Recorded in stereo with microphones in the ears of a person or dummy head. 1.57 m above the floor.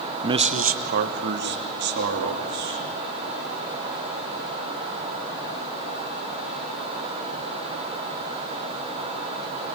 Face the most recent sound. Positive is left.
turn(degrees=-55)  # may be behind; listen again after turning